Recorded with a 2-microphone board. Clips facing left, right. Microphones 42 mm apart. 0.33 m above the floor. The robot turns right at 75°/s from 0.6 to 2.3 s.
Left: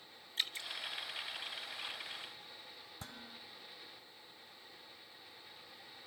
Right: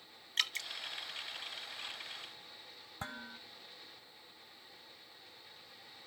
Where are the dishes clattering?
45° right (ahead or behind), 1.3 m.